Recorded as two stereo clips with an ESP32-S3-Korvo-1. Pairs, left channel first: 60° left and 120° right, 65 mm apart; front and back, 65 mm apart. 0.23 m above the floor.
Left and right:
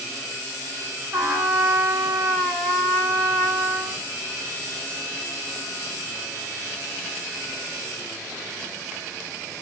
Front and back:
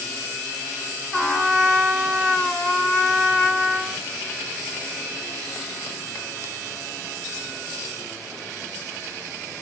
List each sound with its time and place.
1.1 s a trumpet: 80° right, 2.0 m